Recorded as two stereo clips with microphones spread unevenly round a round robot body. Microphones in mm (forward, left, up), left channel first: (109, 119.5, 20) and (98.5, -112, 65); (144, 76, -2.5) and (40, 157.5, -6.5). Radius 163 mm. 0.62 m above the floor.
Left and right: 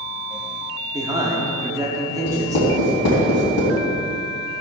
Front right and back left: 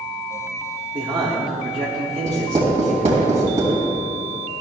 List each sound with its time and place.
0.9 s a man speaking: 175° right, 1.4 m
2.2 s writing: 110° left, 3 m